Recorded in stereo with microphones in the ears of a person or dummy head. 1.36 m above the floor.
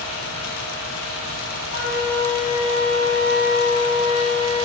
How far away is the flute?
About 1.7 m.